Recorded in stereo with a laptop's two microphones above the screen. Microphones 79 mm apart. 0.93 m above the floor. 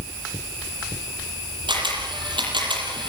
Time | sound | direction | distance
1.7 | a camera shutter | 80° right | 7.5 m